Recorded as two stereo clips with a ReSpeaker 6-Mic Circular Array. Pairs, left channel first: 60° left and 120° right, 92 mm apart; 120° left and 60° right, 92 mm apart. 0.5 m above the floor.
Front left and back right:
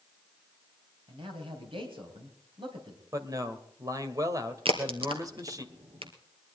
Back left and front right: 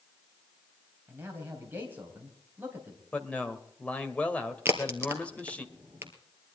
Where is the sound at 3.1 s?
165° right, 2 m.